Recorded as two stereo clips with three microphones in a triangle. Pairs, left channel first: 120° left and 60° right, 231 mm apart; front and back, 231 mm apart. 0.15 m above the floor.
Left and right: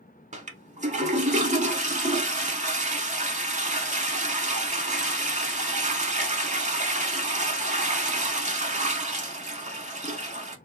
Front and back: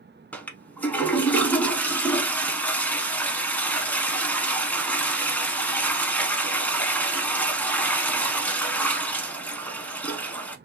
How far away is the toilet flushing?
About 0.6 m.